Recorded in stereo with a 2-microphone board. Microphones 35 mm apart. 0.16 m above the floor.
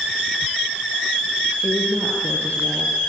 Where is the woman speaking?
55° left (ahead or behind), 3.5 m.